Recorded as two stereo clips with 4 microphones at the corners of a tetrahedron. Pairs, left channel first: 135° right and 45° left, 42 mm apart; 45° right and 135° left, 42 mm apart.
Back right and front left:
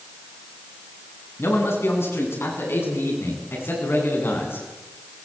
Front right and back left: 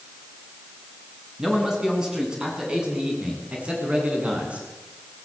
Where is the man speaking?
145° right, 8 m; by 4.7 s 165° right, 8.5 m.